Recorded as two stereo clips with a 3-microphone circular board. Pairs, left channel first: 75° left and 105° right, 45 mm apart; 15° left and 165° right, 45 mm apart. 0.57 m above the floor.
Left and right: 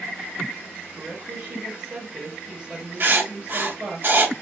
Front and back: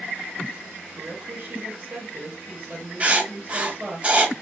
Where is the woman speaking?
130° right, 1.0 m.